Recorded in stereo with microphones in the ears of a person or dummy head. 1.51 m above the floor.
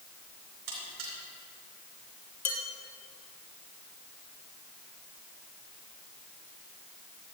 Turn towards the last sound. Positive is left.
turn(degrees=15)  # may be behind; listen again after turning